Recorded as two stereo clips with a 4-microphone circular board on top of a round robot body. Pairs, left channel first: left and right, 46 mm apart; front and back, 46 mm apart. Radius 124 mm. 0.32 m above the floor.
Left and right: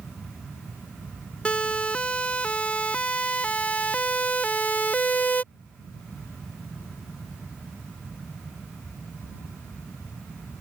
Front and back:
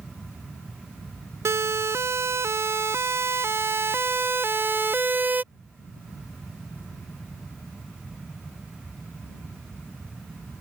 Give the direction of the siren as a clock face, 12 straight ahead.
7 o'clock.